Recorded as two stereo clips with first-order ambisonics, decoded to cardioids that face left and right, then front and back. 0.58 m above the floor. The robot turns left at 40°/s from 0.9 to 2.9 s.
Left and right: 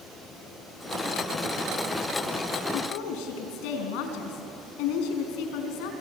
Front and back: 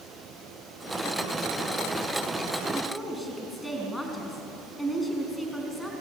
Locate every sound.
2.7 s a woman speaking: 95° left, 5 m; by 6.0 s 85° left, 5 m